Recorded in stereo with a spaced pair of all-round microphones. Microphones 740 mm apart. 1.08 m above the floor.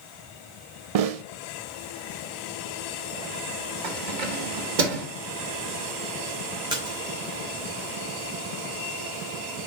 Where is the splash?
5° right (ahead or behind), 2.5 m.